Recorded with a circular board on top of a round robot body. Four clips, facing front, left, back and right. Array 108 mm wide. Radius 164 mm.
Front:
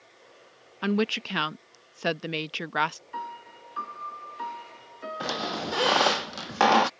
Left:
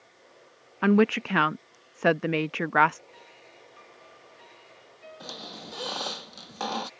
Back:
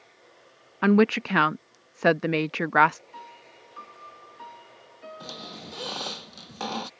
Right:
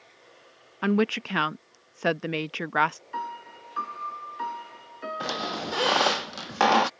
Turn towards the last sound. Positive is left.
turn(degrees=-45)